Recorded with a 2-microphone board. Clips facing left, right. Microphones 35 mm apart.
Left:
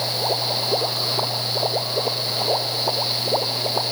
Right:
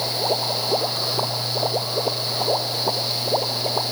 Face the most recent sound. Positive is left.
No sound to turn to.